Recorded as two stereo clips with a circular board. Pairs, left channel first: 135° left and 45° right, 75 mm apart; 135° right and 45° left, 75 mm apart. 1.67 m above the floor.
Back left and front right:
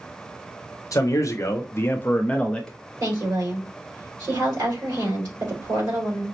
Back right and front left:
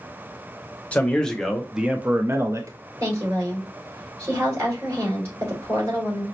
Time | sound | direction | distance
0.9 | a man speaking | 160° left | 0.8 m
3.0 | a woman speaking | 5° right | 2.5 m